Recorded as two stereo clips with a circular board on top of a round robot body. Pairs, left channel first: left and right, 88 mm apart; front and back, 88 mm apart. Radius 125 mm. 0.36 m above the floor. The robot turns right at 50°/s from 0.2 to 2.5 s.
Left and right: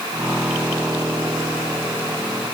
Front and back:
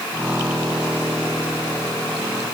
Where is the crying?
No crying in this recording.